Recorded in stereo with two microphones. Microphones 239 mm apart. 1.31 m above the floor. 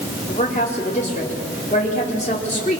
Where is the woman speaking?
30° left (ahead or behind), 3.5 m.